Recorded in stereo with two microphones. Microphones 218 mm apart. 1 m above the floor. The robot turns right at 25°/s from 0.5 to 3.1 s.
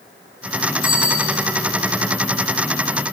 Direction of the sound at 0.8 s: 75° right (ahead or behind).